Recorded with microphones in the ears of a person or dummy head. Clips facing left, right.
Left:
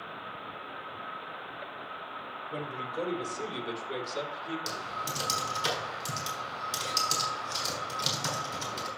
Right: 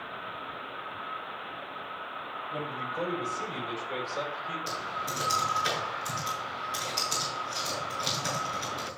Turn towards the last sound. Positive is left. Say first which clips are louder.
# right 1 dB
turn(degrees=55)  # may be behind; listen again after turning